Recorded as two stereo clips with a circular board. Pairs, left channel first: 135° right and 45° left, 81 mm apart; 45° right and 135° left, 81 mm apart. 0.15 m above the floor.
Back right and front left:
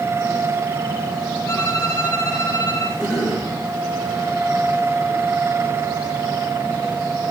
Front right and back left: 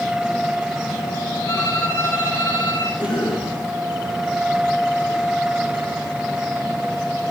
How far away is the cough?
About 9 m.